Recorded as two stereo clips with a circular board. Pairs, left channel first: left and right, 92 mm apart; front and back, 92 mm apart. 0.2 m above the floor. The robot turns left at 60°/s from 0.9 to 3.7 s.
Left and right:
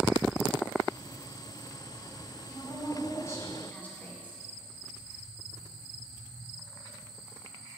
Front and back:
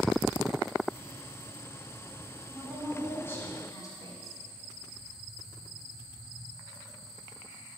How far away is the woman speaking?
About 1.6 m.